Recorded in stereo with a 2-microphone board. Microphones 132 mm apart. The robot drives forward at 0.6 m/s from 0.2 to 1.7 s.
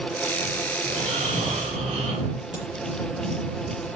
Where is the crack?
75° right (ahead or behind), 6.5 m.